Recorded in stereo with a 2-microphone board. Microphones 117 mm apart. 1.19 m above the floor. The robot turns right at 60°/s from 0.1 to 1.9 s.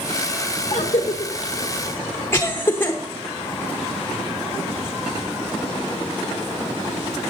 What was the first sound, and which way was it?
A cough, 65° left (ahead or behind).